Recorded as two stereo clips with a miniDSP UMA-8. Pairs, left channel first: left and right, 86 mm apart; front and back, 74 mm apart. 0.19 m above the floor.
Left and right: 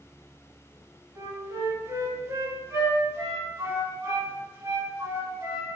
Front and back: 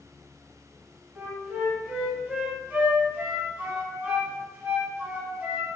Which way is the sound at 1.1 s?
125° right.